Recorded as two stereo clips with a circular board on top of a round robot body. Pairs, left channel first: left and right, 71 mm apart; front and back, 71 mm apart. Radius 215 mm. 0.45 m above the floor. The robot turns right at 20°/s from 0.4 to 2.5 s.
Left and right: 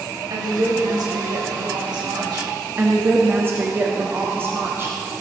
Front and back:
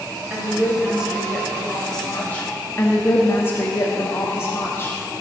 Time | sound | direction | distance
0.3 | a woman speaking | 110° right | 3 m
2.8 | a woman speaking | 45° right | 1.3 m